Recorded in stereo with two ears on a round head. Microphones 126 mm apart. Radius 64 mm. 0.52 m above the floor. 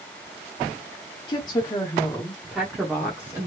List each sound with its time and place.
1.3 s a woman speaking: 35° left (ahead or behind), 1.0 m; by 3.5 s 20° right (ahead or behind), 1.2 m